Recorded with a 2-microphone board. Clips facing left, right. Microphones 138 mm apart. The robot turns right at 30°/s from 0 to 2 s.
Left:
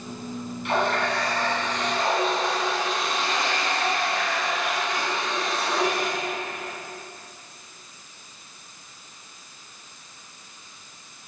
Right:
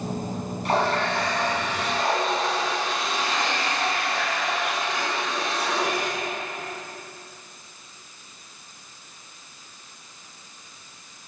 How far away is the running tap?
About 4 m.